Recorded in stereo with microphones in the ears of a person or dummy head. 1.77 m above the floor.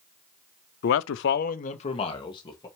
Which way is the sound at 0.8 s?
55° left (ahead or behind).